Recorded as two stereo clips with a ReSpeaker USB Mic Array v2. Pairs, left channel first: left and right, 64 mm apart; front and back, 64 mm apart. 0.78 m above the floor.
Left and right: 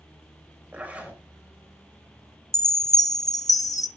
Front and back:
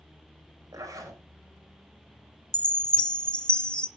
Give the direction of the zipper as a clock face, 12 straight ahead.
5 o'clock.